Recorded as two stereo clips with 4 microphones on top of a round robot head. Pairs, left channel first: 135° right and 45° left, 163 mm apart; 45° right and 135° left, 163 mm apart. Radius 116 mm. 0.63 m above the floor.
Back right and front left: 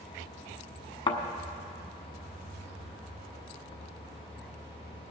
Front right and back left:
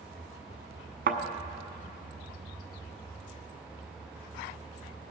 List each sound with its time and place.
1.1 s a thud: 165° left, 1.0 m